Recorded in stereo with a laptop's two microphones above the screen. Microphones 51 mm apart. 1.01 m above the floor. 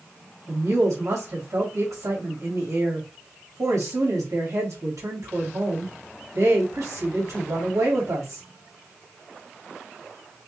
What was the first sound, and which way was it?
A woman speaking, 85° right.